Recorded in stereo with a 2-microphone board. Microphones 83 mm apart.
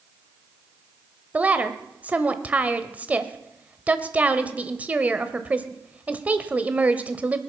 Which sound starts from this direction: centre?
A woman speaking, at 1.3 s.